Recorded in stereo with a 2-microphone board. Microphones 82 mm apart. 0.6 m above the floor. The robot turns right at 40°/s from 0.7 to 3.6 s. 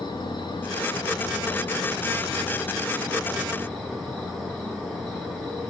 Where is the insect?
65° left, 8 m; by 5.7 s straight behind, 8 m.